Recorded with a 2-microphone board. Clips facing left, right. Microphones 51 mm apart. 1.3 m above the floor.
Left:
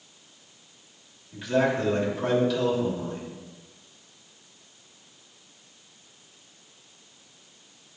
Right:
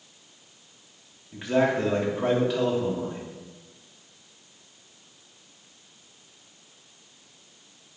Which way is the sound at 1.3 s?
30° right (ahead or behind).